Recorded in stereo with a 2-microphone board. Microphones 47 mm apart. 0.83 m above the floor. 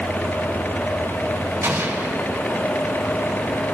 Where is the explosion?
65° right (ahead or behind), 3.5 m.